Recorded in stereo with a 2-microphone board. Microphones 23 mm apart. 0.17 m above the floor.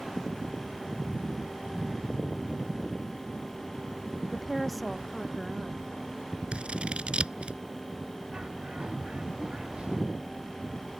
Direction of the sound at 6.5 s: 55° right (ahead or behind).